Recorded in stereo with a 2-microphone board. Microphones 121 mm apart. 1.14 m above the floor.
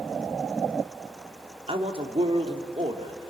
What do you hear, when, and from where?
1.7 s a man speaking: 50° right (ahead or behind), 2.5 m